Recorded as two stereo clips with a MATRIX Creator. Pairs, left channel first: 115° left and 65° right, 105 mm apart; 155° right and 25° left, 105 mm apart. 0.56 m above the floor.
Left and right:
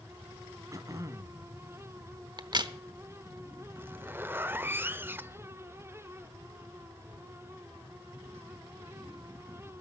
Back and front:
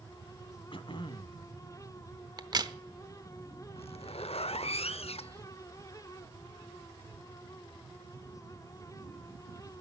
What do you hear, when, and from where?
0.7 s throat clearing: 125° right, 0.9 m
2.4 s a crack: 25° right, 0.8 m
3.8 s a zipper: 140° right, 0.5 m